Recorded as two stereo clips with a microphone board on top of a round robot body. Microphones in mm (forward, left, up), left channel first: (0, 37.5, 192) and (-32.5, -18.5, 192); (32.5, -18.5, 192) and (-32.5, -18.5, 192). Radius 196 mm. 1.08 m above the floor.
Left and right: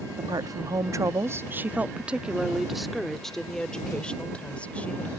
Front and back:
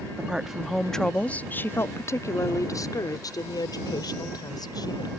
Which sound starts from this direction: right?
A woman speaking, at 0.2 s.